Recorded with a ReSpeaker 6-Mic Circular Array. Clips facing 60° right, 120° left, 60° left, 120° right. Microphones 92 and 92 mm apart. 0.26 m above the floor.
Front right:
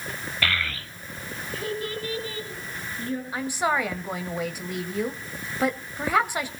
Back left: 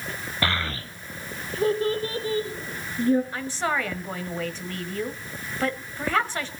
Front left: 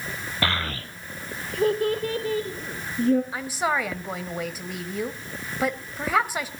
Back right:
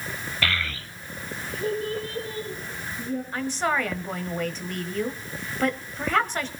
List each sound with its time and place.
0.4 s a child speaking: 90° left, 0.5 m; by 3.2 s 65° left, 1.8 m
3.3 s a woman speaking: 5° right, 1.4 m